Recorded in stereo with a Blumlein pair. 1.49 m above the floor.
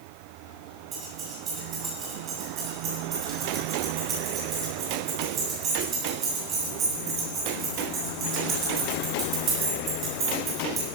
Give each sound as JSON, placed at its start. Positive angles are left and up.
{"t": 0.9, "sound": "keys jangling", "azimuth_deg": -25, "distance_m": 8.0}